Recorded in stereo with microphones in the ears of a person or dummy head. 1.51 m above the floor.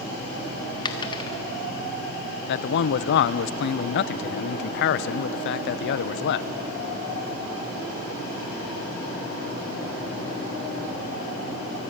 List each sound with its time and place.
0.8 s a dropped coin: 25° left (ahead or behind), 1.4 m
2.5 s a man speaking: 65° left (ahead or behind), 0.7 m